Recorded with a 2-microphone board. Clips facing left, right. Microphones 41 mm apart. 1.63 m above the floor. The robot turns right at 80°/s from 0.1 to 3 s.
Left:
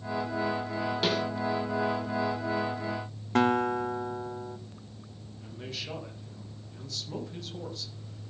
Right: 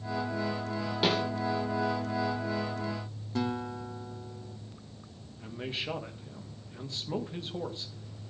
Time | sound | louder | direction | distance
1.0 | a snare drum | right 2 dB | 10° right (ahead or behind) | 6.5 m
3.4 | a guitar | left 9 dB | 60° left (ahead or behind) | 0.7 m
5.4 | a man speaking | right 4 dB | 25° right (ahead or behind) | 2 m